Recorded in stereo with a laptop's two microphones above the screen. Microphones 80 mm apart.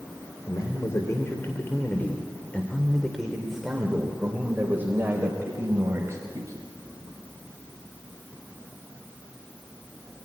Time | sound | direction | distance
0.5 | a man speaking | 50° left (ahead or behind) | 3 m